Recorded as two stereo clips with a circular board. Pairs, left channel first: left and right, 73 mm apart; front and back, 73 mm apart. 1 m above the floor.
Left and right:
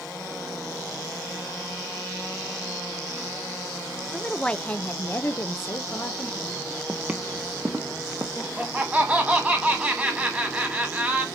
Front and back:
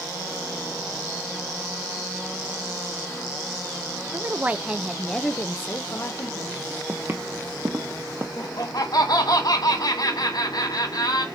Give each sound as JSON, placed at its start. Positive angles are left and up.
{"t": 4.1, "sound": "a woman speaking", "azimuth_deg": 170, "distance_m": 0.7}
{"t": 6.9, "sound": "footsteps", "azimuth_deg": -155, "distance_m": 1.1}
{"t": 8.4, "sound": "laughter", "azimuth_deg": -15, "distance_m": 1.6}